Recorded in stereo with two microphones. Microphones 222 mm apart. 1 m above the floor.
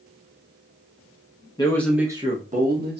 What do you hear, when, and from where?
1.6 s a man speaking: 20° left (ahead or behind), 0.9 m; by 3.0 s 50° right (ahead or behind), 1.4 m